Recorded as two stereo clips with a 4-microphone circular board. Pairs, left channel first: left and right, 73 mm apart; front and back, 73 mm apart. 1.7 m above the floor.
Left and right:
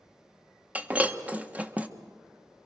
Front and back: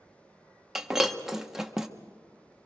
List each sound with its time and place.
0.8 s breaking glass: 105° right, 1.1 m